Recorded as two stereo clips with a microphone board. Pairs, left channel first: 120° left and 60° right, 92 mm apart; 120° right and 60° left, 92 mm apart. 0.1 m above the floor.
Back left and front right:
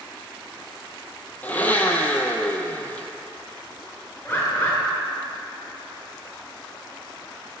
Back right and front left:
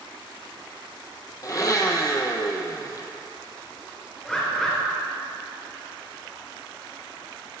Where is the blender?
170° right, 0.6 m.